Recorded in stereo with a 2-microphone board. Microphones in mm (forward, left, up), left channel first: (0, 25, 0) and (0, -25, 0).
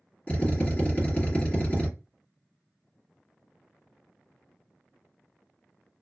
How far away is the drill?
About 2.5 m.